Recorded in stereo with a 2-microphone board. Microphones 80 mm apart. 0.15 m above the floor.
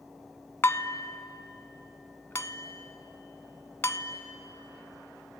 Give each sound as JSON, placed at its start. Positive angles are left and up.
{"t": 0.6, "sound": "dishes clattering", "side_deg": 30, "distance_m": 0.7}